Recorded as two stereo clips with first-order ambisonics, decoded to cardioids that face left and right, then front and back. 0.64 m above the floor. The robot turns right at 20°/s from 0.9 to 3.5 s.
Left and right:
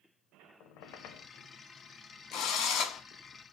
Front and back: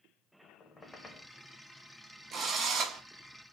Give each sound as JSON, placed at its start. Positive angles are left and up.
{"t": 0.6, "sound": "a squeak", "azimuth_deg": 70, "distance_m": 0.6}
{"t": 2.3, "sound": "a drill", "azimuth_deg": 115, "distance_m": 0.7}